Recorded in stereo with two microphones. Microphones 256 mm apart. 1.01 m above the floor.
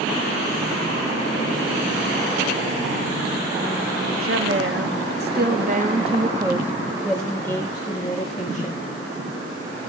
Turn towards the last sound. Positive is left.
turn(degrees=30)  # may be behind; listen again after turning